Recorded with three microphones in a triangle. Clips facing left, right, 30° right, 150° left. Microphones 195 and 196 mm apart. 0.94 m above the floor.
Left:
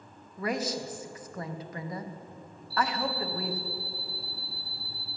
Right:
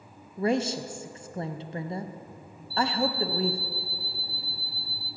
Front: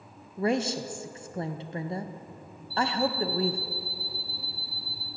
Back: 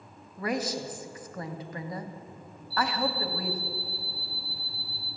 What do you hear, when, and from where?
0.4 s a woman speaking: 60° right, 0.6 m
2.7 s an alarm clock: 30° right, 4 m